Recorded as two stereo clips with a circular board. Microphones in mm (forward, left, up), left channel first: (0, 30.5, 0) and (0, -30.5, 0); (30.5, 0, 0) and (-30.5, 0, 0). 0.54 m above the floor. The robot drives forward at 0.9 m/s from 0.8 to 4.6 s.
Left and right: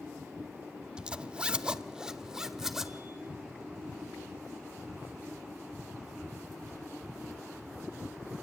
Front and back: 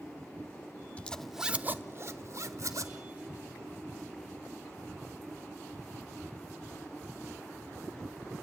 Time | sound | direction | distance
1.0 | a zipper | 35° right | 0.7 m